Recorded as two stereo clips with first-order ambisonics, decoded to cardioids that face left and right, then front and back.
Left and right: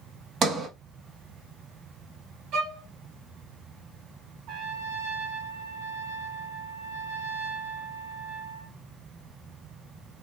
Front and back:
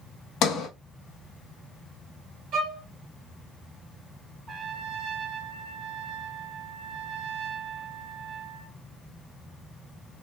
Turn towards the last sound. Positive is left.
turn(degrees=-90)